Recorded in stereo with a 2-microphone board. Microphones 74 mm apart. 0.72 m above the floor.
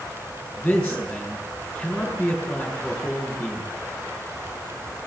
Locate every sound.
0.6 s a man speaking: 5° left (ahead or behind), 7.5 m